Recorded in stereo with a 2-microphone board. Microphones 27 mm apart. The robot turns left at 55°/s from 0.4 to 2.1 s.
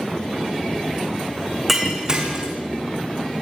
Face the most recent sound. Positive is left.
turn(degrees=-30)  # may be behind; listen again after turning